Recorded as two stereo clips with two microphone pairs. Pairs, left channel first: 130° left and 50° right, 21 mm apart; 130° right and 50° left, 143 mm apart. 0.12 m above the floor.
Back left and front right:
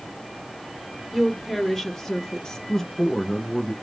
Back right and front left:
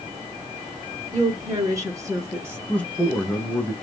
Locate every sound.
1.1 s a woman speaking: 50° left, 1.4 m; by 2.6 s 115° left, 1.7 m
2.7 s a man speaking: 160° left, 1.1 m